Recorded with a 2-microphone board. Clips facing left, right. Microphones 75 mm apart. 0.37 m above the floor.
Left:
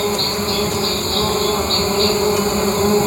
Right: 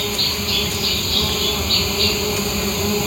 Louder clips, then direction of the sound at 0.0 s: Left 6 dB; 35° left (ahead or behind).